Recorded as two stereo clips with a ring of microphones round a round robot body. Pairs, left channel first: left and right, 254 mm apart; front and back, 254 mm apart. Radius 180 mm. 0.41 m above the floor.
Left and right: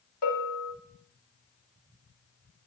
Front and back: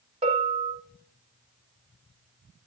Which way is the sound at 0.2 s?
115° left.